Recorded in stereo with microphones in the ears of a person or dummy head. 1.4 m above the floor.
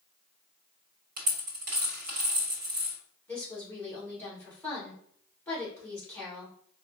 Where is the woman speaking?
15° left (ahead or behind), 1.9 m.